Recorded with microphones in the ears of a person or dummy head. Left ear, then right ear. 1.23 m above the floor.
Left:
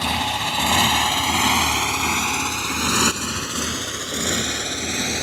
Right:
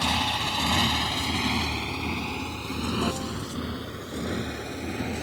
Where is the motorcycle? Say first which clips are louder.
Left 3 dB; 10° left (ahead or behind); by 5.2 s 75° left (ahead or behind).